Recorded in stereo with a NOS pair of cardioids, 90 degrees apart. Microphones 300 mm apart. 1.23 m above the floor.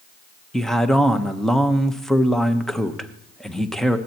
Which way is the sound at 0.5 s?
Straight ahead.